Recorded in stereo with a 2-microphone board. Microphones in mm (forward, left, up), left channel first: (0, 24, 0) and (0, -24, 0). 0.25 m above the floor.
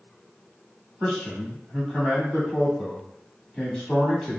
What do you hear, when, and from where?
1.0 s a man speaking: 15° left (ahead or behind), 1.4 m